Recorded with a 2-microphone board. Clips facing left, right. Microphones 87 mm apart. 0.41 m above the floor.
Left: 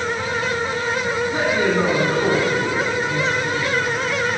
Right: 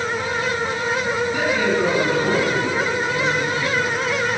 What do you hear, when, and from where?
1.3 s a woman speaking: 55° left (ahead or behind), 3.5 m